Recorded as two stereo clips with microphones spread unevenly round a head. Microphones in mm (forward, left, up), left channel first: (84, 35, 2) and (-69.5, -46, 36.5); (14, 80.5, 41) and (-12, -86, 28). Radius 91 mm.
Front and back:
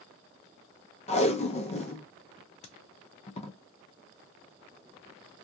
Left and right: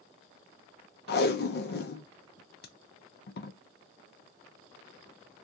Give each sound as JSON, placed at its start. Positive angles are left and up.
{"t": 1.1, "sound": "tape being pulled", "azimuth_deg": 70, "distance_m": 0.5}